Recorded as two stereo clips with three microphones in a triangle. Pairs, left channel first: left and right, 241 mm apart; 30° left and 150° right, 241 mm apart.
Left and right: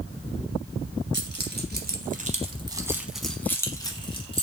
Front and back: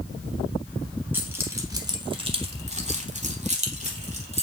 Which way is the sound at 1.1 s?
70° right.